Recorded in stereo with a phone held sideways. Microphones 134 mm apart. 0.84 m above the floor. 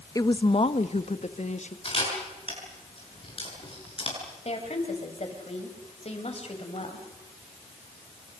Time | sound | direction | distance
0.1 | a woman speaking | 25° left (ahead or behind) | 0.7 m
1.9 | a camera shutter | 45° left (ahead or behind) | 7.5 m
4.5 | a woman speaking | 50° left (ahead or behind) | 5 m